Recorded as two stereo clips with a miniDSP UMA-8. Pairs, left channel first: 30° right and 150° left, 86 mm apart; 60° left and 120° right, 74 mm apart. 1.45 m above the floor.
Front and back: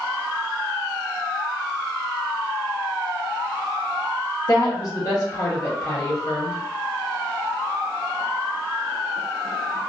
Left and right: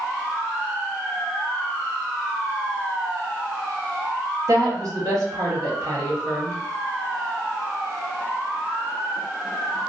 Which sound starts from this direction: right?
A woman speaking, at 4.5 s.